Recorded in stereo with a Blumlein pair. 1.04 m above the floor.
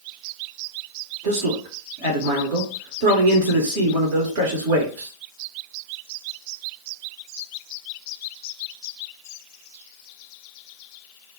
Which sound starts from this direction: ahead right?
A man speaking, at 1.2 s.